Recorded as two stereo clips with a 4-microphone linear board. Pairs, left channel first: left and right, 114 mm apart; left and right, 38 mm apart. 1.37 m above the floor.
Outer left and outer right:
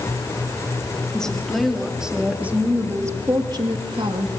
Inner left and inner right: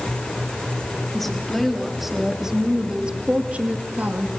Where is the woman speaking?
5° left (ahead or behind), 3.5 m; by 4.3 s 55° right (ahead or behind), 2.5 m.